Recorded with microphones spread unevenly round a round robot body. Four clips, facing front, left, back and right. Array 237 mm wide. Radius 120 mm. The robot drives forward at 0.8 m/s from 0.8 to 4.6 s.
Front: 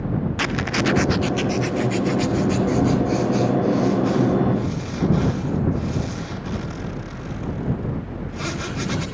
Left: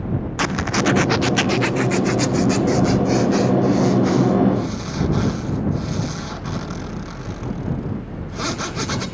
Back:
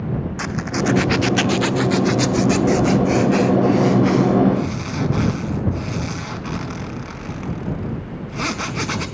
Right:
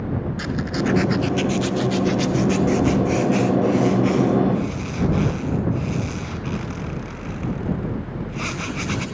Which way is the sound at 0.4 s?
75° left.